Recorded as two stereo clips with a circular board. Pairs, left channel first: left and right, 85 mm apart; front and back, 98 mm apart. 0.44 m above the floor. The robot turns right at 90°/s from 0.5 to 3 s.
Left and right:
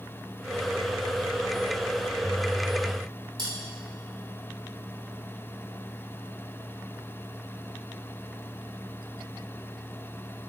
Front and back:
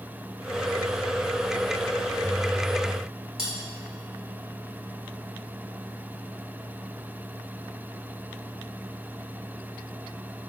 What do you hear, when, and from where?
3.4 s cutlery clinking: 100° right, 1.4 m